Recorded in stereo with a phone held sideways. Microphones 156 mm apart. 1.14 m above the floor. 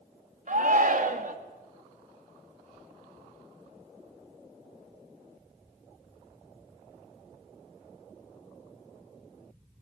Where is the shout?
55° right (ahead or behind), 1.8 m.